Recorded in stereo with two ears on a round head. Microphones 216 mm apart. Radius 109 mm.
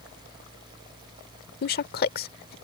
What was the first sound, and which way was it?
A woman speaking, 45° left (ahead or behind).